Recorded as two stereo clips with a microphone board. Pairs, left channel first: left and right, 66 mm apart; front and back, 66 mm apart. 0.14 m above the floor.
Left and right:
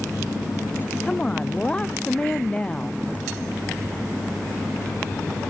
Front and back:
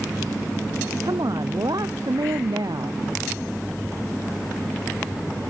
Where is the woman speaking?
165° left.